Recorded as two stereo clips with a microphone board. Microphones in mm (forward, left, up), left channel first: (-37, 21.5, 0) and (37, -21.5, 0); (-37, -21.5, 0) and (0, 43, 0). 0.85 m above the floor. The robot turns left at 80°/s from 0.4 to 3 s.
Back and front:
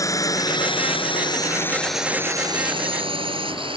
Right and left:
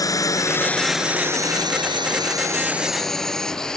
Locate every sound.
0.0 s a drone: 160° right; by 3.8 s 40° right